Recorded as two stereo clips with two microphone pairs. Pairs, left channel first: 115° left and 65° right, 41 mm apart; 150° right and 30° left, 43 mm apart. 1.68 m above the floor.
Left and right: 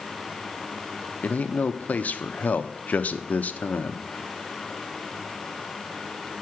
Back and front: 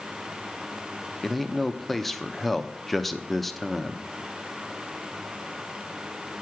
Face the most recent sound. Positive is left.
turn(degrees=125)